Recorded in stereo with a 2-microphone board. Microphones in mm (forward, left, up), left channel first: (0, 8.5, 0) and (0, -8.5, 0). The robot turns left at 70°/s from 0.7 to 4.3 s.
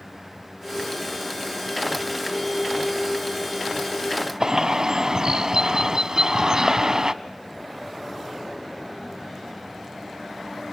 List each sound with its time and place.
4.4 s a bird: 50° right (ahead or behind), 0.9 m